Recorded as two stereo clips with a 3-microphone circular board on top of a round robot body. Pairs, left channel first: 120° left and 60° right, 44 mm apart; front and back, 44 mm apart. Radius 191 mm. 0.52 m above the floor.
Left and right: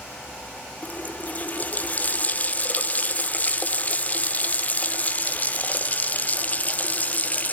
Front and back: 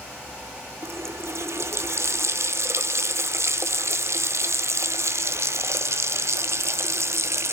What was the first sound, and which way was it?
A running tap, 175° left.